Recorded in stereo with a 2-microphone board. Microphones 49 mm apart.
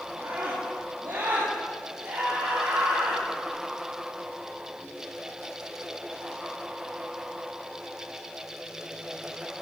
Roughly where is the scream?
Right.